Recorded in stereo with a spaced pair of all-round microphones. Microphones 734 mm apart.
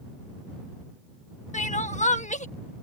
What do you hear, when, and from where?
1.5 s crying: 10° left (ahead or behind)